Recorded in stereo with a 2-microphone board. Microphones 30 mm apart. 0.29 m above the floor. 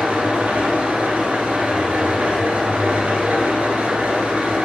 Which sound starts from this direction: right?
An engine running, at 0.0 s.